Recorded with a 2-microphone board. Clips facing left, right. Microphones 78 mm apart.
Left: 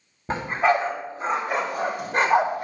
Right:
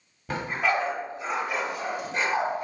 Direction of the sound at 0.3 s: 30° left (ahead or behind).